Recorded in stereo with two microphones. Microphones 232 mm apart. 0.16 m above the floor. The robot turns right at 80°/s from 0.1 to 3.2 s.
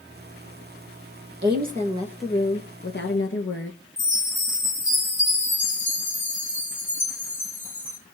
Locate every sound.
1.4 s a woman speaking: 65° right, 2.5 m; by 3.8 s 80° left, 2.5 m
4.0 s a chime: 35° left (ahead or behind), 3.5 m